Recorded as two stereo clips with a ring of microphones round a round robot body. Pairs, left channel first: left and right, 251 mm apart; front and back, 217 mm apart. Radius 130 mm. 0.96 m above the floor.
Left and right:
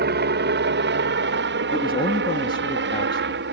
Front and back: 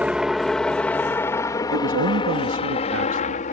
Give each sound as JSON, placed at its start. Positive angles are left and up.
{"t": 0.0, "sound": "a helicopter", "azimuth_deg": -95}
{"t": 1.7, "sound": "a man speaking", "azimuth_deg": 160}